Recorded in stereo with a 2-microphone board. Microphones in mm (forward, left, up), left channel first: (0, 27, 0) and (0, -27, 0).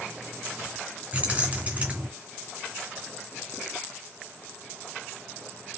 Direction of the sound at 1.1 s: 30° right (ahead or behind).